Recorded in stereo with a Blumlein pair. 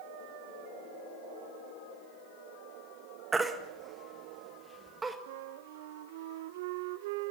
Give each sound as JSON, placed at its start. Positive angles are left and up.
{"t": 3.3, "sound": "a baby crying", "azimuth_deg": -10, "distance_m": 1.6}
{"t": 5.3, "sound": "a flute", "azimuth_deg": -50, "distance_m": 0.5}